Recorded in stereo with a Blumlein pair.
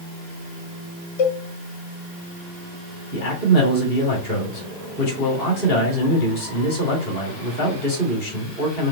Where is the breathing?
I don't hear breathing.